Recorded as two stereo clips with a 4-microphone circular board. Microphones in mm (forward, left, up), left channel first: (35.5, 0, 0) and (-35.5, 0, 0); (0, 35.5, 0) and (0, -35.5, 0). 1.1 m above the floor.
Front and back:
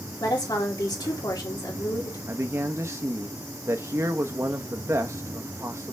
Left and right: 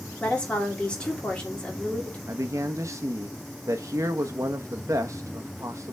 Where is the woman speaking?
20° left, 2.5 m.